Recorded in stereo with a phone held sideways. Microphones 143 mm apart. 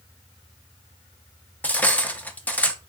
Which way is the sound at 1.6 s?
10° left (ahead or behind).